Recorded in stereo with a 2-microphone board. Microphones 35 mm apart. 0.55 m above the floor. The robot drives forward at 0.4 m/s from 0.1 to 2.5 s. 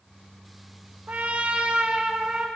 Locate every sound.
1.1 s a trumpet: 50° right (ahead or behind), 0.6 m; by 2.5 s 30° right (ahead or behind), 1.0 m